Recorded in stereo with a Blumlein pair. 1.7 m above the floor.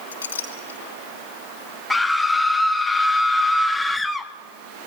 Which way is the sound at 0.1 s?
70° left.